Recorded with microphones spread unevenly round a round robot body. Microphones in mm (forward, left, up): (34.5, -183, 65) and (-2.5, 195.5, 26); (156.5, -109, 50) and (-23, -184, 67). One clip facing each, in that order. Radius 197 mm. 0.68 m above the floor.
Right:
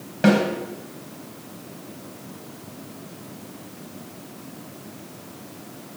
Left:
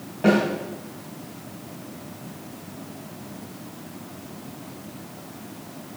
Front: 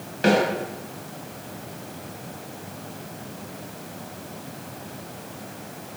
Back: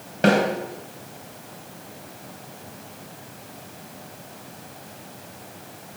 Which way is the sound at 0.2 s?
130° right.